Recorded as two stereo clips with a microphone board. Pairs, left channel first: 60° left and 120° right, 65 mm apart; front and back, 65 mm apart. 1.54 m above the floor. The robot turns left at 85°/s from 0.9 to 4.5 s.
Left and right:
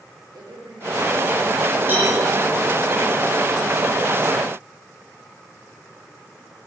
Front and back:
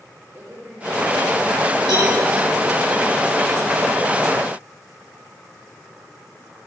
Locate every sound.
0.3 s a woman speaking: 120° right, 6.5 m; by 2.9 s 70° left, 6.5 m
1.9 s a cowbell: 175° left, 9 m; by 2.1 s 155° left, 9 m